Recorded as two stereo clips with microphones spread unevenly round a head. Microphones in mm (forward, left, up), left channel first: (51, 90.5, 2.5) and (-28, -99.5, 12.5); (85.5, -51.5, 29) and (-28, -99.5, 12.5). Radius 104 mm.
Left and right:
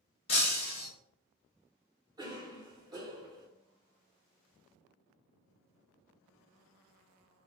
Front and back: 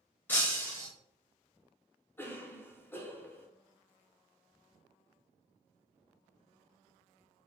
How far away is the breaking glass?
About 1.0 m.